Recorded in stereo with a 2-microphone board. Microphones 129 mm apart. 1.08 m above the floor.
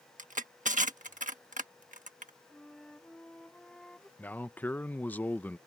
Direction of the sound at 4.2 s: 15° left (ahead or behind).